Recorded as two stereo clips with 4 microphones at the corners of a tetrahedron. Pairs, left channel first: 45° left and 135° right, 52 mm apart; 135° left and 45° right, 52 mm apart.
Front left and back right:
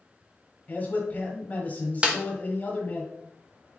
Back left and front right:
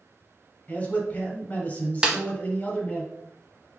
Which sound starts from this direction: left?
A man speaking, at 0.7 s.